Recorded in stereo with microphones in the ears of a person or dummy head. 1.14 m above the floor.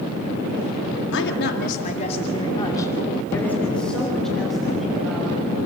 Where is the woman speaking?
75° left (ahead or behind), 1.9 m; by 5.3 s centre (ahead or behind), 5.5 m.